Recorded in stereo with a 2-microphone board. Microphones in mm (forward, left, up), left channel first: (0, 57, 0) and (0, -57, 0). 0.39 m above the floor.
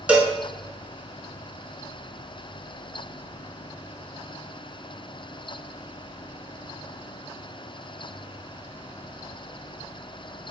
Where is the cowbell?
10° right (ahead or behind), 0.7 m.